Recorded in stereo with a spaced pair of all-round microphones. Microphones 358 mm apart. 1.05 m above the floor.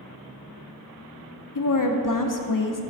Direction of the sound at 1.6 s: 60° left (ahead or behind).